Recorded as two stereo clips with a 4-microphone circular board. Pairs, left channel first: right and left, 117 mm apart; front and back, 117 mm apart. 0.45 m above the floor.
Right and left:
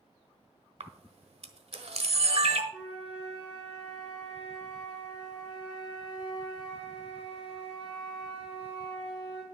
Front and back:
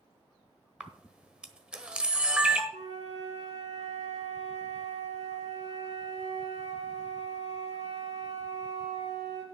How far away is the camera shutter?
About 1.2 m.